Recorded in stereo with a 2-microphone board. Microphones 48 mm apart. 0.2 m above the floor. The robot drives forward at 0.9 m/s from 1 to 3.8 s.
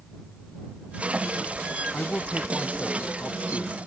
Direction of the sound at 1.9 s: 25° left (ahead or behind).